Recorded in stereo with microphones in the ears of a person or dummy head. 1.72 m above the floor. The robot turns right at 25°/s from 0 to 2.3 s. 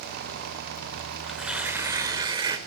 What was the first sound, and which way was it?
Tearing paper, centre (ahead or behind).